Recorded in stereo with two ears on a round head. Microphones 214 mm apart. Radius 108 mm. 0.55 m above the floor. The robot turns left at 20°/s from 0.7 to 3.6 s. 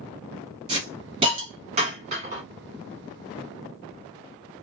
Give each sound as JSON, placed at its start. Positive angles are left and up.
{"t": 0.7, "sound": "a hiss", "side_deg": -20, "distance_m": 1.5}